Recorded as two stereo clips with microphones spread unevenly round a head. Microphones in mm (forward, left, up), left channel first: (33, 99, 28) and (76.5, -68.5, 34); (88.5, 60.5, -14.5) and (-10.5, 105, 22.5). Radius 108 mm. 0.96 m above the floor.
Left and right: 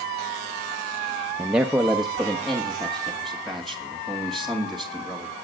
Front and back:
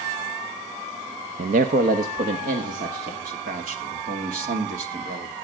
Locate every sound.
1.4 s a man speaking: 160° right, 0.7 m; by 3.1 s 170° right, 2 m
3.2 s a man speaking: 165° right, 2.5 m